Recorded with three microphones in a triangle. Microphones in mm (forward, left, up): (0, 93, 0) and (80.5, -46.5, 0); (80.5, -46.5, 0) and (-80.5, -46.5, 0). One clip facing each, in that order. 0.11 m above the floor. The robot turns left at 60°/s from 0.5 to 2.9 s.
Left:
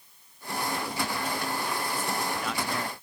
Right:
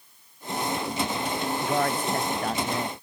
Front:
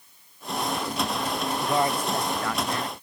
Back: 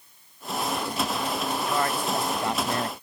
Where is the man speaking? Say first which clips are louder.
Right 6 dB, front 4 dB; 60° right; by 3.0 s 135° right.